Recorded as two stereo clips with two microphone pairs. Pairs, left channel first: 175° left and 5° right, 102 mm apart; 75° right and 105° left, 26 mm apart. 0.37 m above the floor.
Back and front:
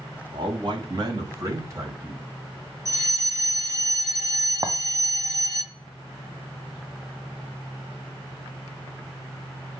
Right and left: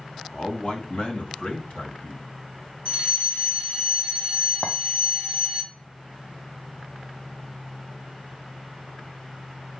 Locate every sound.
0.3 s a man speaking: 35° right, 3.5 m; by 2.2 s 70° right, 3.5 m
2.9 s a fire alarm: 60° right, 7 m
4.6 s a clink: 60° right, 1.4 m